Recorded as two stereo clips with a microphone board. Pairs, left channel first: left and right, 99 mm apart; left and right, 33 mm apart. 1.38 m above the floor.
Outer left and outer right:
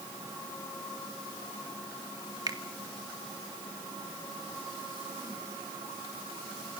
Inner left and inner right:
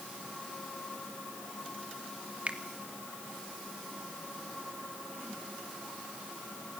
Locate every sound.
2.5 s a finger snap: 40° right (ahead or behind), 2 m